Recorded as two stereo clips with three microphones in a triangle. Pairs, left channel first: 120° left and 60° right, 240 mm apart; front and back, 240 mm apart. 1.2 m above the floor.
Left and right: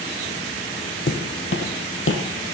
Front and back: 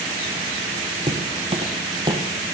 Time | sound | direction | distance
1.1 | footsteps | 125° left | 1.8 m